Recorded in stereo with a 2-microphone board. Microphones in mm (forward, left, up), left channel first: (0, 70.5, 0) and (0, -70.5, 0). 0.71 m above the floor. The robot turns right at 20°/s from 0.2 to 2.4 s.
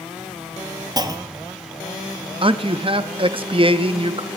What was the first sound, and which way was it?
A clunk, 30° right (ahead or behind).